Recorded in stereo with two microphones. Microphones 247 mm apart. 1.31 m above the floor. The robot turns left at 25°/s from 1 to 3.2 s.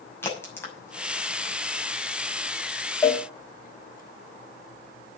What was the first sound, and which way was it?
A crack, 10° left (ahead or behind).